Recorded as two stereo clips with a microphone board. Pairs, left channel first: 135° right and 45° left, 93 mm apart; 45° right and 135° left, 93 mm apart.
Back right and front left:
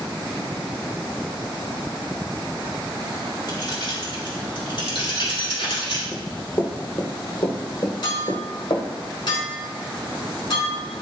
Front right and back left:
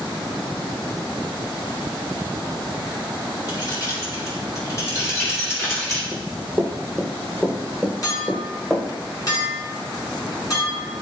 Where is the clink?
95° right, 3.5 m.